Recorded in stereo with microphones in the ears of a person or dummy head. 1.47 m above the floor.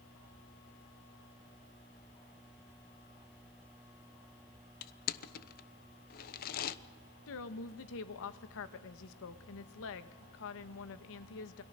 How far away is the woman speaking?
About 1.2 m.